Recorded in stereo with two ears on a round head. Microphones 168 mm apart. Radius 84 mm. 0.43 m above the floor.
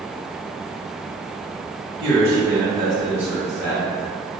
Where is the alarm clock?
I don't hear an alarm clock.